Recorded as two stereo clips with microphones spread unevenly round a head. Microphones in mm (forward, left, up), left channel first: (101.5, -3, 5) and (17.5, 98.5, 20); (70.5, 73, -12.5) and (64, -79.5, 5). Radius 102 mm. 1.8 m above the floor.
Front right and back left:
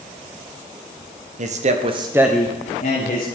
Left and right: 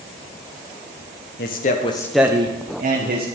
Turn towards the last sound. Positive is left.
turn(degrees=-100)